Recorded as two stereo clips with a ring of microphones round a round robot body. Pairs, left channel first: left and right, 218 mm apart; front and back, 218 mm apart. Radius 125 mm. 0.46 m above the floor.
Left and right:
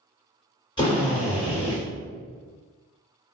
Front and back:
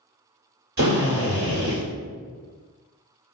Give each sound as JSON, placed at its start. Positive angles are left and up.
{"t": 0.8, "sound": "a drill", "azimuth_deg": 155, "distance_m": 1.5}